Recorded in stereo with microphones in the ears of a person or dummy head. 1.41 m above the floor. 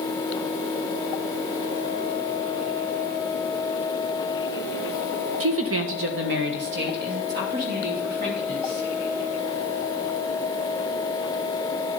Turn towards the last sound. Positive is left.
turn(degrees=-50)  # may be behind; listen again after turning